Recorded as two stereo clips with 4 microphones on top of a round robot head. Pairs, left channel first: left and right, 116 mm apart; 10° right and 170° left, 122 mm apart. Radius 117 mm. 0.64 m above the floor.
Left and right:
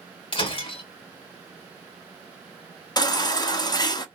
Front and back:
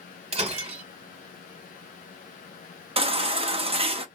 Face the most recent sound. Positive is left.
turn(degrees=140)